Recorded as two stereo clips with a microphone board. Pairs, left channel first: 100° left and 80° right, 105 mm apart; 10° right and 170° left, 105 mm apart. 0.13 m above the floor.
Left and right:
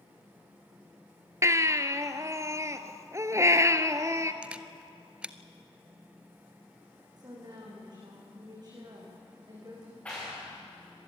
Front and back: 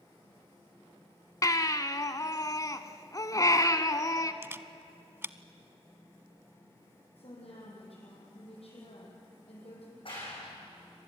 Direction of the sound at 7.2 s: 30° right.